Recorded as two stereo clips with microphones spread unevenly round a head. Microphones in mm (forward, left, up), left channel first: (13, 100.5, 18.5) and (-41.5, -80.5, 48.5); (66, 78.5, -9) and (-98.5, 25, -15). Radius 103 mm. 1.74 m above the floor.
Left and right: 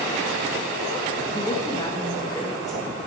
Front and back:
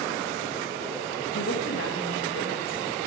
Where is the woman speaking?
Straight ahead, 2.5 m.